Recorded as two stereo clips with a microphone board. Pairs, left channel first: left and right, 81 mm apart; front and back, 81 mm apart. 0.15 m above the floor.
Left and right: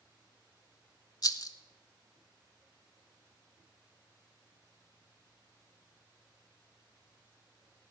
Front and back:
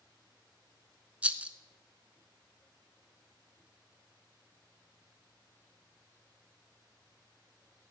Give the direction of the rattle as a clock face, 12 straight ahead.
8 o'clock.